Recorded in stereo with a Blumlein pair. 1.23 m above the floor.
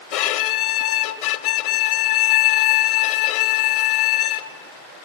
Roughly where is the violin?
Ahead left.